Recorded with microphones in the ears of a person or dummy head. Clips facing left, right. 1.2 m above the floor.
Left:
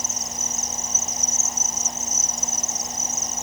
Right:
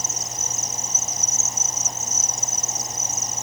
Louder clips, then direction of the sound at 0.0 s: Even; 75° right (ahead or behind).